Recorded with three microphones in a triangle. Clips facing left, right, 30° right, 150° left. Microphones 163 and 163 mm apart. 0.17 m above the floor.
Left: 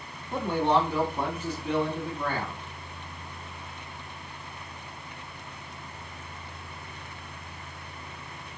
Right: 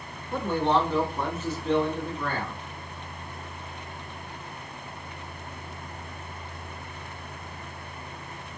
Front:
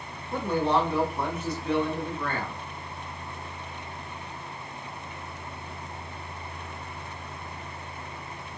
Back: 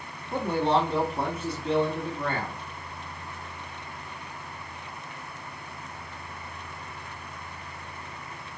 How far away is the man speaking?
About 1.1 m.